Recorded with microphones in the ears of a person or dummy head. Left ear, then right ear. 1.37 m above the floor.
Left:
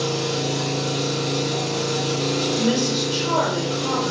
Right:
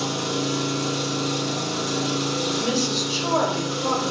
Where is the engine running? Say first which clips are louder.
Left 2 dB; 50° right (ahead or behind), 0.7 m.